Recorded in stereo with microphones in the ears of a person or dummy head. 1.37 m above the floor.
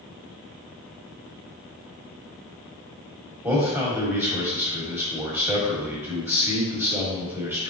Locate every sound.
3.4 s a man speaking: 15° right (ahead or behind), 1.1 m